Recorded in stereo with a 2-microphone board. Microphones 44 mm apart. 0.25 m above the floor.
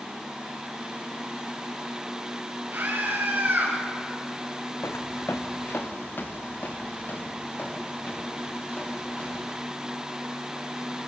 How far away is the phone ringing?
I don't hear a phone ringing.